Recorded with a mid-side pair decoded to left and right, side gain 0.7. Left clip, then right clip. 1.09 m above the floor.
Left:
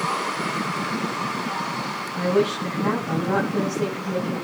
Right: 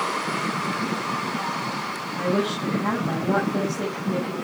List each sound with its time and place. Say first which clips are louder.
2.1 s a woman speaking: left 3 dB; 10° right, 8 m